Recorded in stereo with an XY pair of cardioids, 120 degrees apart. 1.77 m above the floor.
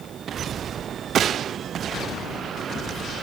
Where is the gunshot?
55° right, 0.7 m.